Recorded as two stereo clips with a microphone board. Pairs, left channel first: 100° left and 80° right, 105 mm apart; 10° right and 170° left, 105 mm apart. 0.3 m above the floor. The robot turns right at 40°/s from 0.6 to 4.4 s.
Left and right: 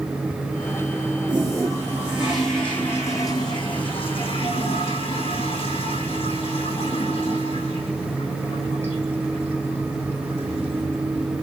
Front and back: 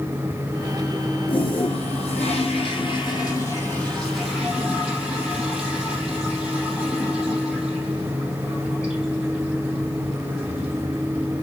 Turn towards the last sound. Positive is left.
turn(degrees=90)